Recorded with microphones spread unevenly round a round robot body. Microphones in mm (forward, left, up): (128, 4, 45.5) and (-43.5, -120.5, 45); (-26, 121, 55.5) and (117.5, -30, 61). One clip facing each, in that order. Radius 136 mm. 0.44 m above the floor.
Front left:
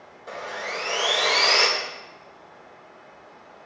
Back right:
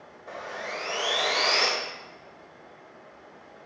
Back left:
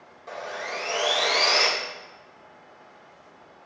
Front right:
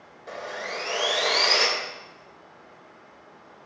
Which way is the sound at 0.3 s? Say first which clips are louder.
Front left 3 dB, even; 30° left.